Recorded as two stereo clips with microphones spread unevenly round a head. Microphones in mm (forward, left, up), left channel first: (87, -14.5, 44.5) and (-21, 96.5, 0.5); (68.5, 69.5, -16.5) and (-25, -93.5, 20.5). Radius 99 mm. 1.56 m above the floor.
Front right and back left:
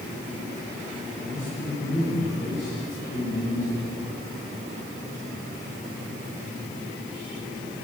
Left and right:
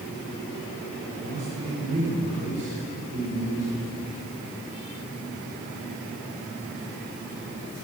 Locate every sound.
1.2 s a man speaking: 100° right, 3.5 m